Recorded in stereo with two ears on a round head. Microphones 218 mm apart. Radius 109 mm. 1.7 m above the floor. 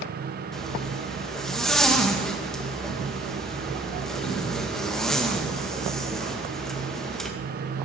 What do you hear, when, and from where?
0.5 s a zipper: centre (ahead or behind), 2.0 m